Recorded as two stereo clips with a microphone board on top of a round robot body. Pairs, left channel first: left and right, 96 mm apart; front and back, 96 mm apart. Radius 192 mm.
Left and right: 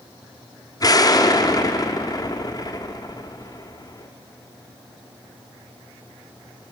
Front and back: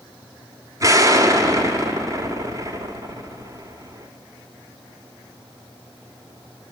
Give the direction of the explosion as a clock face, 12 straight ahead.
8 o'clock.